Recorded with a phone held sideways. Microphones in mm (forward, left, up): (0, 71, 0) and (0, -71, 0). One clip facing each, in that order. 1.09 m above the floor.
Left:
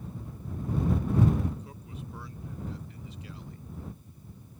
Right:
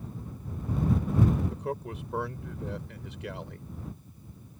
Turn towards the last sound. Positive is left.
turn(degrees=-75)  # may be behind; listen again after turning